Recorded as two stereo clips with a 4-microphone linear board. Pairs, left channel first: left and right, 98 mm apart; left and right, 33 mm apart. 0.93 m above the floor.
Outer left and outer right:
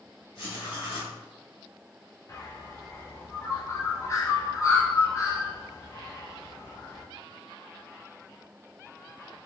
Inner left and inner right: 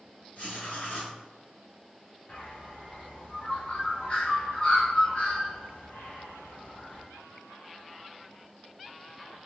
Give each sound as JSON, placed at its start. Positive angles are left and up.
{"t": 0.3, "sound": "writing", "side_deg": 70, "distance_m": 1.5}
{"t": 2.3, "sound": "a bird", "side_deg": 35, "distance_m": 0.8}